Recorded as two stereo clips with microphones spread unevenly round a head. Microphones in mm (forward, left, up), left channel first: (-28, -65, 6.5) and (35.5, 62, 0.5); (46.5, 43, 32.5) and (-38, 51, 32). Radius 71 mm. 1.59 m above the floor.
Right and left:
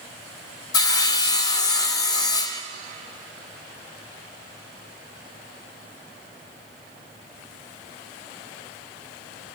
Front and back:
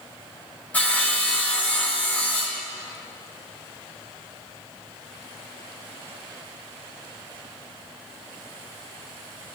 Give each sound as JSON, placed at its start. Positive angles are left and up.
{"t": 0.7, "sound": "sawing", "azimuth_deg": -75, "distance_m": 0.9}